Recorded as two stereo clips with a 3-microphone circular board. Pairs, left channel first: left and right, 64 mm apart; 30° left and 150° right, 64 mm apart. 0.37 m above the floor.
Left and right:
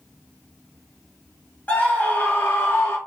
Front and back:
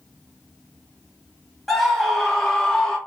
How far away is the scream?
About 1.3 m.